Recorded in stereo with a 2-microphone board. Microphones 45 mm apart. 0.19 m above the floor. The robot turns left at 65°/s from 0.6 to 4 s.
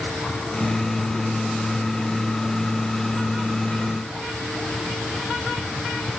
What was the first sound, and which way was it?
Only background noise.